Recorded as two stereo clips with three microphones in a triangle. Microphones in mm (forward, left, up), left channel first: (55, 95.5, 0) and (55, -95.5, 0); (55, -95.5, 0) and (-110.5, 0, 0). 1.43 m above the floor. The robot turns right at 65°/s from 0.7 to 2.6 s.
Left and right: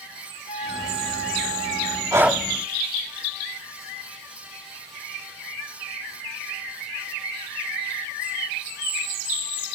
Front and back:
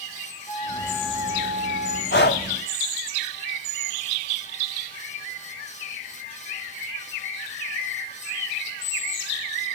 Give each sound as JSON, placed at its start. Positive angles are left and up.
{"t": 0.5, "sound": "a flute", "azimuth_deg": 35, "distance_m": 1.7}
{"t": 2.1, "sound": "breathing", "azimuth_deg": -15, "distance_m": 0.8}